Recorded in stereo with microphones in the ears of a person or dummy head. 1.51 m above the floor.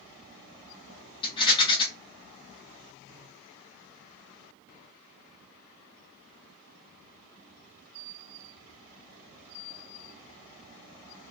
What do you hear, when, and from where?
1.2 s a rattle: 25° left (ahead or behind), 0.6 m